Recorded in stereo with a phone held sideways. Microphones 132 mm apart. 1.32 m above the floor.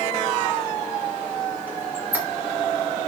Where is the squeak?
15° right (ahead or behind), 3.5 m.